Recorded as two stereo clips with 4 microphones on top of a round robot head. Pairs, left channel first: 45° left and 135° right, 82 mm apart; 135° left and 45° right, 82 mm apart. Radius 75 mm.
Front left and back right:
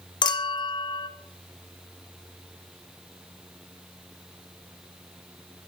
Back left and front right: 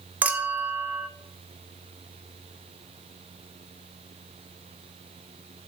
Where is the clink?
25° left, 1.3 m.